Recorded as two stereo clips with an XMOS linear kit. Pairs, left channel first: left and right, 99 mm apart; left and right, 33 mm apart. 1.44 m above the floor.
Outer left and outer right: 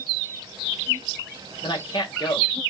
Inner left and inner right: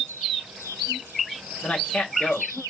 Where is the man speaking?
55° left (ahead or behind), 2.0 m.